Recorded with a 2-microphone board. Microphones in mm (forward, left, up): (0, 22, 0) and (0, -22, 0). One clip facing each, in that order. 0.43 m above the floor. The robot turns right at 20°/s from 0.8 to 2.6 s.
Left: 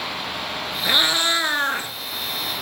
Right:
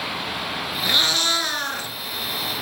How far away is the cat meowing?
About 0.7 m.